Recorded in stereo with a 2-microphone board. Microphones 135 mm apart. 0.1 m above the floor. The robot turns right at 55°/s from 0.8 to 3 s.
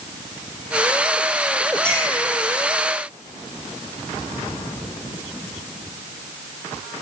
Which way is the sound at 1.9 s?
5° left (ahead or behind).